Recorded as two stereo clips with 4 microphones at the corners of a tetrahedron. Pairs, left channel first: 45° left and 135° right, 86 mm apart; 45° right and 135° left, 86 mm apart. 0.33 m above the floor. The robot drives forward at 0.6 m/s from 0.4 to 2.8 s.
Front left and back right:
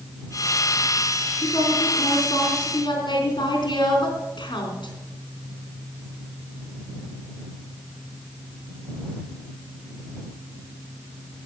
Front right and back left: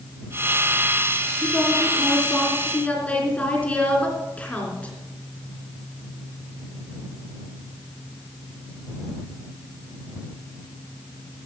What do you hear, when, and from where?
1.4 s a woman speaking: 20° left, 4 m; by 4.9 s 30° left, 3 m